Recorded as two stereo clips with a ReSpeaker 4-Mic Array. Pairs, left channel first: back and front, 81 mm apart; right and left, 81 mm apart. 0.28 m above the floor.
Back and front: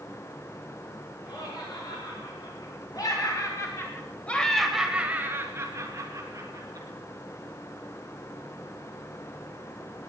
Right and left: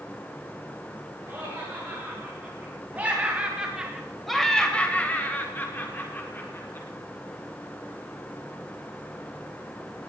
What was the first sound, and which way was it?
Laughter, 155° left.